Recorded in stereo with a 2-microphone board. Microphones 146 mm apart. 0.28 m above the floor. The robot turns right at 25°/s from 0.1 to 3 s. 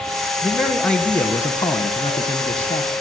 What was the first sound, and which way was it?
A man speaking, 5° right.